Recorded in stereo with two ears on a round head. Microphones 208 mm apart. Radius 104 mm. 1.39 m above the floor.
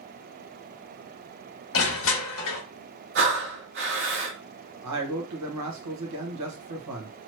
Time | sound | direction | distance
1.7 | crushing | 65° left (ahead or behind) | 1.5 m
3.1 | breathing | 50° right (ahead or behind) | 1.6 m
4.8 | a man speaking | 80° right | 1.5 m